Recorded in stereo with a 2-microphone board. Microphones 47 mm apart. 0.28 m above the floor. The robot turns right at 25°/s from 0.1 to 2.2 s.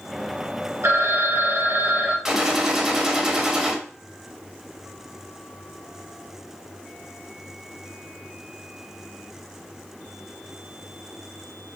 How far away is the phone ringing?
About 2.5 m.